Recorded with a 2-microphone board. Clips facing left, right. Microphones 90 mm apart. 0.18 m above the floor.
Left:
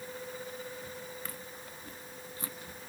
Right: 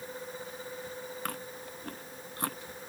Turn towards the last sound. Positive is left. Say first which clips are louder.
# right 5 dB
turn(degrees=-60)  # may be behind; listen again after turning